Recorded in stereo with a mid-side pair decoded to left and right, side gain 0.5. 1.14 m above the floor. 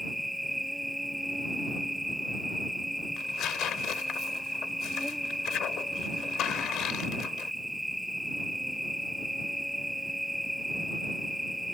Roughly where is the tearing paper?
Left.